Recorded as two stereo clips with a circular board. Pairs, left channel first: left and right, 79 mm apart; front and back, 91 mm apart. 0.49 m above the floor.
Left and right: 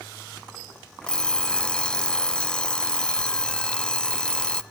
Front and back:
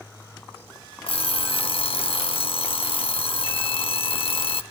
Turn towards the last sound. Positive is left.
turn(degrees=10)